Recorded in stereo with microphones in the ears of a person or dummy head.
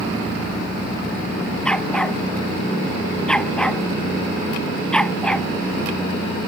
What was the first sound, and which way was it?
A dog barking, 5° left (ahead or behind).